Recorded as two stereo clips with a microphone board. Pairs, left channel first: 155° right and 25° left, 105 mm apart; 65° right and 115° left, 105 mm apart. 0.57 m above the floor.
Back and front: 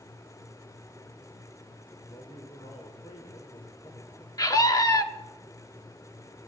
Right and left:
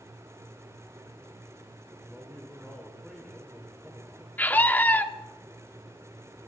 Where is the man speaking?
165° right, 2.5 m.